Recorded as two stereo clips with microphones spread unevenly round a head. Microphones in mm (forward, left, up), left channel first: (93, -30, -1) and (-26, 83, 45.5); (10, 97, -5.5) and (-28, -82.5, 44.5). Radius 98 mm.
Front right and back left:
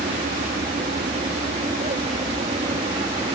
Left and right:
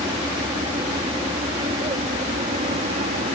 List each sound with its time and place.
0.0 s an aircraft: 170° right; by 3.4 s 160° right